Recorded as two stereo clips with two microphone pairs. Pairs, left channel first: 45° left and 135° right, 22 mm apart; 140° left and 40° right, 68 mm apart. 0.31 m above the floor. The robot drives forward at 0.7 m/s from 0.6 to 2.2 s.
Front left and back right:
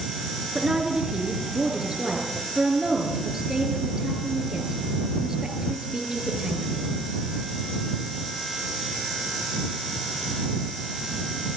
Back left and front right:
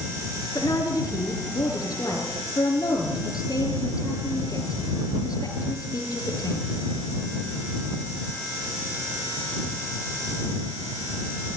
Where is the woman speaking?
160° left, 5 m; by 6.9 s 165° left, 6 m.